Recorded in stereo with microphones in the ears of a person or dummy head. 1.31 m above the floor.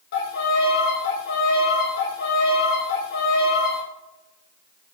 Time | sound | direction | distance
0.1 | a violin | 65° left (ahead or behind) | 1.0 m